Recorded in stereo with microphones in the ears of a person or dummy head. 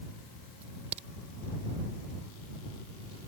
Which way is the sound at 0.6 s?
40° right (ahead or behind).